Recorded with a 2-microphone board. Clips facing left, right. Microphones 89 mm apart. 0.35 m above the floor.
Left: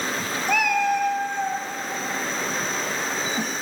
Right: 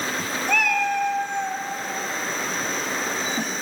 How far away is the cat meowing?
About 1.5 m.